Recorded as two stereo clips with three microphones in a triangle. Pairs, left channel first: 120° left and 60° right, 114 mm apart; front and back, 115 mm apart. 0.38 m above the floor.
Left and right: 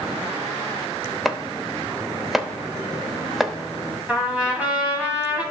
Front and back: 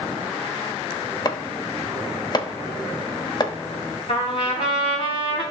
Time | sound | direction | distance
1.2 | chopping | 30° left | 0.7 m
4.1 | a trumpet | 20° left | 3 m